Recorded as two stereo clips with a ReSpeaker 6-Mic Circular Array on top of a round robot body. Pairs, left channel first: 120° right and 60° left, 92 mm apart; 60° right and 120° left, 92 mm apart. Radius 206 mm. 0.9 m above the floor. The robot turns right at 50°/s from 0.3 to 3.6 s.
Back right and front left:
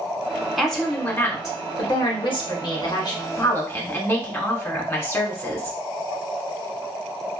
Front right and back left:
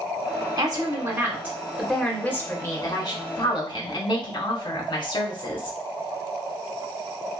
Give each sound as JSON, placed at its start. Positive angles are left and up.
{"t": 0.6, "sound": "a woman speaking", "azimuth_deg": 145, "distance_m": 1.3}